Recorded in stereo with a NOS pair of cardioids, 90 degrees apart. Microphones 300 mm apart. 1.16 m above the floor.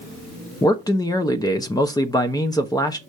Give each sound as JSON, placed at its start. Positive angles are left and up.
{"t": 0.6, "sound": "a man speaking", "azimuth_deg": 10, "distance_m": 0.8}